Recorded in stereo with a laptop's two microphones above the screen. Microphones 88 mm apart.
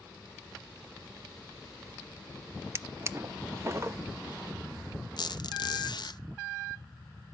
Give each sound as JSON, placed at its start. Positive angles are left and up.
{"t": 2.8, "sound": "a drawer", "side_deg": -35, "distance_m": 0.7}
{"t": 5.2, "sound": "a squeak", "side_deg": 60, "distance_m": 0.5}